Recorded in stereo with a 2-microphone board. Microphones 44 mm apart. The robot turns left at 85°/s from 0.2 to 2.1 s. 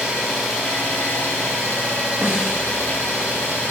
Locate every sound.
0.0 s an engine running: 155° right, 1.1 m; by 3.7 s 45° left, 1.1 m
2.2 s a snare drum: 15° right (ahead or behind), 0.6 m